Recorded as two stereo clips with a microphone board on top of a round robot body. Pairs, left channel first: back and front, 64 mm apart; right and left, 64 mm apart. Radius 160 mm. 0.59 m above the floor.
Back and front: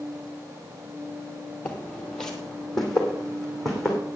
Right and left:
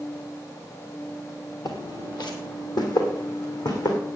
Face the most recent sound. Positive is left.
turn(degrees=-90)